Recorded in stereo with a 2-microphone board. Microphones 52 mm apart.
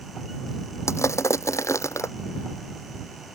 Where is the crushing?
65° left (ahead or behind).